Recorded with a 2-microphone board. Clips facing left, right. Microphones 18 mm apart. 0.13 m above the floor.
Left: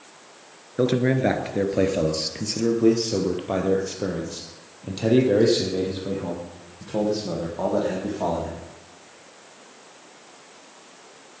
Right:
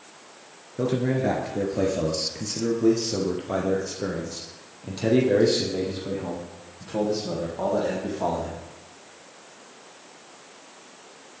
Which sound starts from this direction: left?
A man speaking, at 0.8 s.